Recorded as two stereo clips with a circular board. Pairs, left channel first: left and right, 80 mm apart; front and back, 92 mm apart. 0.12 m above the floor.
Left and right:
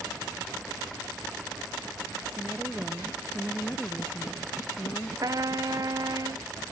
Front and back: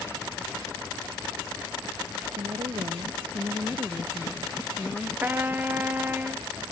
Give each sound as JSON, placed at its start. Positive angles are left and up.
{"t": 2.4, "sound": "a woman speaking", "azimuth_deg": -175}
{"t": 5.2, "sound": "a trumpet", "azimuth_deg": -115}